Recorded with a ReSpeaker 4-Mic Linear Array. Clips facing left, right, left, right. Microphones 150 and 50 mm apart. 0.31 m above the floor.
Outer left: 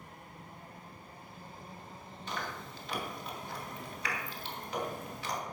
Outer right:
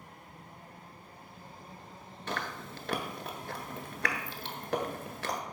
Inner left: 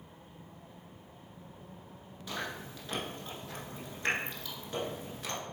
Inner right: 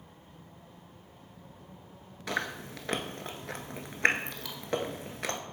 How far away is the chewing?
About 0.7 m.